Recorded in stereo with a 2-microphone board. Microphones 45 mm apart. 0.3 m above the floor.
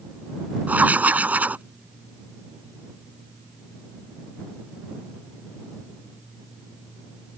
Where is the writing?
40° right (ahead or behind).